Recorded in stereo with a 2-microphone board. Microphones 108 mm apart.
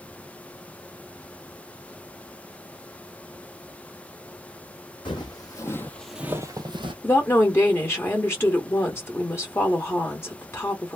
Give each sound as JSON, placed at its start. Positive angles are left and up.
{"t": 5.0, "sound": "footsteps", "side_deg": 45, "distance_m": 1.3}
{"t": 7.0, "sound": "a woman speaking", "side_deg": 25, "distance_m": 1.2}